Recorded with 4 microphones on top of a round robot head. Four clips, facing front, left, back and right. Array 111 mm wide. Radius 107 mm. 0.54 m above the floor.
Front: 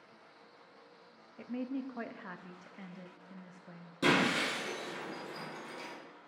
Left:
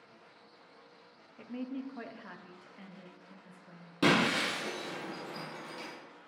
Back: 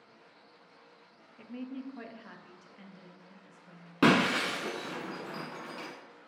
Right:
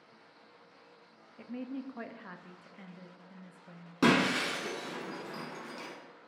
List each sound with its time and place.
1.4 s a woman speaking: 20° right, 0.7 m
4.0 s breaking glass: 160° right, 0.6 m